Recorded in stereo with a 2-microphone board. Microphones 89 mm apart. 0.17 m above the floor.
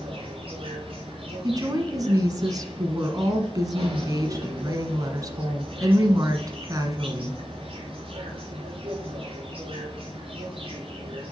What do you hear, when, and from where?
0.0 s an insect: 75° right (ahead or behind), 3.5 m
1.4 s a woman speaking: 40° right (ahead or behind), 1.5 m